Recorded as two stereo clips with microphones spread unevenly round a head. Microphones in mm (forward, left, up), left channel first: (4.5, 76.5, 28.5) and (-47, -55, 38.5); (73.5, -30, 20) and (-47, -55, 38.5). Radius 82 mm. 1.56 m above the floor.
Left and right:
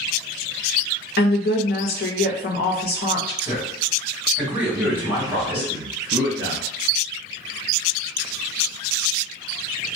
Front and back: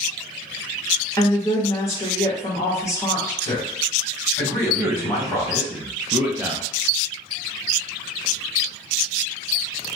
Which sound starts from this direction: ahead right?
A man speaking, at 3.4 s.